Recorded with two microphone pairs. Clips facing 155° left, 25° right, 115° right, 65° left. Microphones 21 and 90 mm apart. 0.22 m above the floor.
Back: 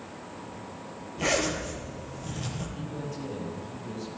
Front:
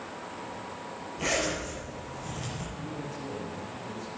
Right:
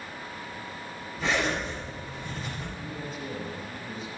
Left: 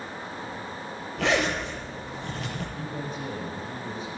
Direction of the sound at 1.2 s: 75° left.